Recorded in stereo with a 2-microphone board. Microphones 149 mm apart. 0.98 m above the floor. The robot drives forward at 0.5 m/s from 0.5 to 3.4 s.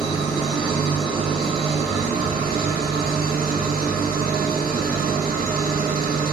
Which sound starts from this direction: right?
An engine running, at 0.0 s.